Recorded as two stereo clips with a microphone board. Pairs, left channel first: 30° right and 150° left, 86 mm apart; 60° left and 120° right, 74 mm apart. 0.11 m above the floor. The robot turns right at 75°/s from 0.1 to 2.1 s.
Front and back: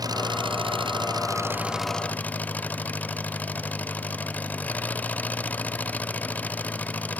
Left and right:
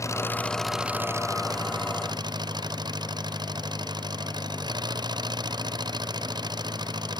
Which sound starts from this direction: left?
An engine running, at 0.0 s.